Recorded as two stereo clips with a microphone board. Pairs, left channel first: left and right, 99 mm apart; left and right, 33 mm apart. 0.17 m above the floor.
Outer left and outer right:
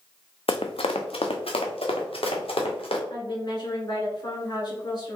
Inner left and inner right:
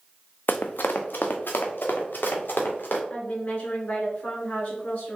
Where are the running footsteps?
70° left (ahead or behind), 0.6 m.